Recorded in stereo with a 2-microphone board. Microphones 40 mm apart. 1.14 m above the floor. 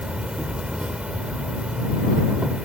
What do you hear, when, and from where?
0.0 s an insect: 30° right (ahead or behind)